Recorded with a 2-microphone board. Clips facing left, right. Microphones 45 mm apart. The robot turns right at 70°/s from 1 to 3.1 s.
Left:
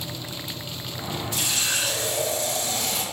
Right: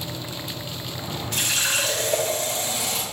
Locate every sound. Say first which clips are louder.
1.3 s a running tap: right 4 dB; 115° right, 1.4 m; by 3.0 s 5° left, 1.4 m